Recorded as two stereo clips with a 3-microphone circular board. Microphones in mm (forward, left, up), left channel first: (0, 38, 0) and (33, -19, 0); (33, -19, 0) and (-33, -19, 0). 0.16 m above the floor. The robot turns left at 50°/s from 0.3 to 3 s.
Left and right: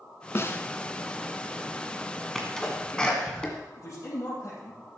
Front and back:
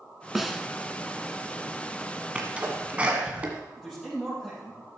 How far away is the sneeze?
About 1.5 m.